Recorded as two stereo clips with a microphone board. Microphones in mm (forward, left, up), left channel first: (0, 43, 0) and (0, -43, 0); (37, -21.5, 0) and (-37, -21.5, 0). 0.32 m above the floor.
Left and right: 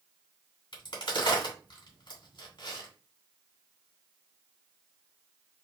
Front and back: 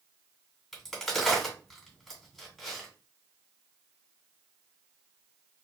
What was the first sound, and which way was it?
A crack, 85° left.